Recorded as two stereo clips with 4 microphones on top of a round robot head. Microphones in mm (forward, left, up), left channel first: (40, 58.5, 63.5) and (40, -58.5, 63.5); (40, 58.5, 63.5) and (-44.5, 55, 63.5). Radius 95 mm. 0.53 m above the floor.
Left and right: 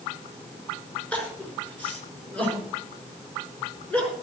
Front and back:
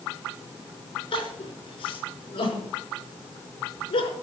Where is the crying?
10° left, 5.5 m.